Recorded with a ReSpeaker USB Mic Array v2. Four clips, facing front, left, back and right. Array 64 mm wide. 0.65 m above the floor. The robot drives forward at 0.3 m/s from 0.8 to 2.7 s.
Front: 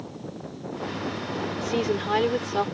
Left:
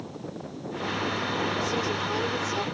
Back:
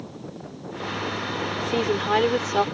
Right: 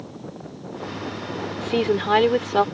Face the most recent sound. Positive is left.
turn(degrees=-110)